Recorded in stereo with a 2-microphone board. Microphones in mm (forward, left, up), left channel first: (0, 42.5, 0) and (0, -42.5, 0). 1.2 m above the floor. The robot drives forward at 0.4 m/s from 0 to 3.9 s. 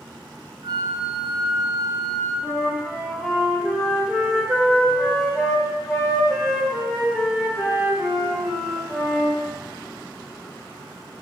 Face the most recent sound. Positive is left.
turn(degrees=-10)  # may be behind; listen again after turning